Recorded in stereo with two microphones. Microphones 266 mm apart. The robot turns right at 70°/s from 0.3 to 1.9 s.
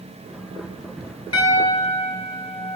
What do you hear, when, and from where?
1.3 s a piano: 120° left, 2.5 m; by 2.8 s 160° left, 2.5 m